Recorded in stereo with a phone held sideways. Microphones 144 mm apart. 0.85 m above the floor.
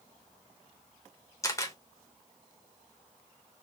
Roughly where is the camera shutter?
Left.